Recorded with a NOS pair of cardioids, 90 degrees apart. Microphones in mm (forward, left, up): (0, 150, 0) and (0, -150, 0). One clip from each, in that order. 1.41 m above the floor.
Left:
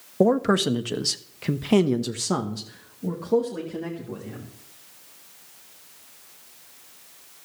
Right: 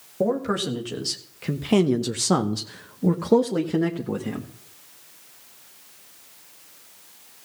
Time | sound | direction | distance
0.2 | a man speaking | 40° left | 1.6 m